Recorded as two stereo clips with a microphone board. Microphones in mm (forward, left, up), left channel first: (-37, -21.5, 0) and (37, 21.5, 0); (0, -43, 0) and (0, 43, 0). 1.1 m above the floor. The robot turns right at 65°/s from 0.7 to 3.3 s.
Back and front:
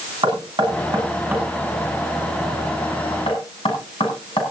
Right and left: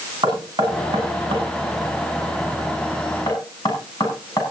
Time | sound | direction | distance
0.2 | knocking | 60° left | 7.5 m